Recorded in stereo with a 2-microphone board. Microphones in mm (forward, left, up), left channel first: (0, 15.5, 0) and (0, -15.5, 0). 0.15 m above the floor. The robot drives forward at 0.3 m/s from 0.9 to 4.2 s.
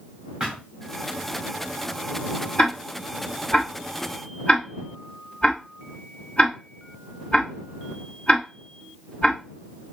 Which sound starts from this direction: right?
A thud, at 0.4 s.